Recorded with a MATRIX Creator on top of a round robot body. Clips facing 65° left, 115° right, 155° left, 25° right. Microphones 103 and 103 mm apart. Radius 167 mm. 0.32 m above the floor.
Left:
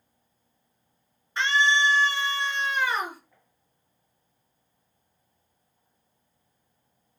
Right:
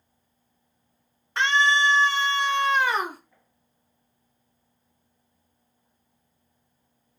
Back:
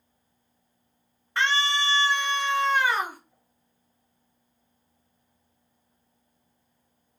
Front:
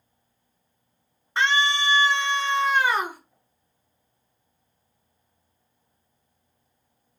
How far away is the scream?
About 4.5 m.